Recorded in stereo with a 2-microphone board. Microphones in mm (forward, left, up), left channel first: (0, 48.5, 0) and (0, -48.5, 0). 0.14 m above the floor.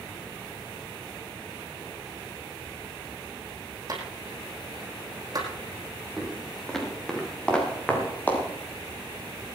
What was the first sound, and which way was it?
A clap, 40° right (ahead or behind).